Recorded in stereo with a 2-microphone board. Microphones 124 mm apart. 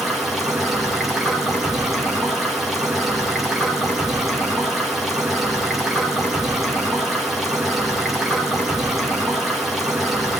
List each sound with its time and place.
0.0 s running water: centre (ahead or behind), 2 m